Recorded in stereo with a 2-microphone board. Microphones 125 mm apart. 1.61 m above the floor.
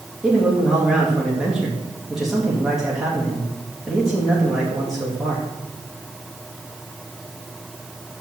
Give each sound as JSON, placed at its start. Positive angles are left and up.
{"t": 0.2, "sound": "a man speaking", "side_deg": -5, "distance_m": 3.0}